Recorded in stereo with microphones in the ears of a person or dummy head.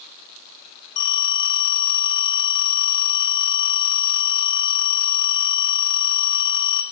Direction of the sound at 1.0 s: 75° left (ahead or behind).